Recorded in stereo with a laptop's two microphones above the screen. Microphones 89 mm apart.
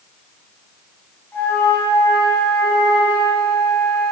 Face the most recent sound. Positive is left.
turn(degrees=20)  # may be behind; listen again after turning